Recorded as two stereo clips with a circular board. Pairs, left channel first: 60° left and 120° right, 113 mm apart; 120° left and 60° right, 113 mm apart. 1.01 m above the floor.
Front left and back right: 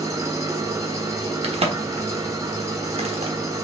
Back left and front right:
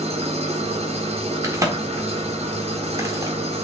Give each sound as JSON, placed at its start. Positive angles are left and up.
{"t": 0.0, "sound": "an engine running", "azimuth_deg": -60, "distance_m": 1.2}
{"t": 1.4, "sound": "a crack", "azimuth_deg": -120, "distance_m": 1.4}